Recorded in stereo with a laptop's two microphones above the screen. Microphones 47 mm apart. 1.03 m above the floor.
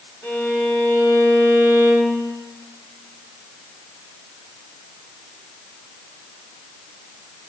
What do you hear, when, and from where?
0.2 s a violin: 55° left (ahead or behind), 4.5 m